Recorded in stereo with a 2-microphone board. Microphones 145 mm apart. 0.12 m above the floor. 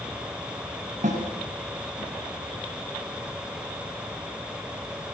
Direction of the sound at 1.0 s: 55° right (ahead or behind).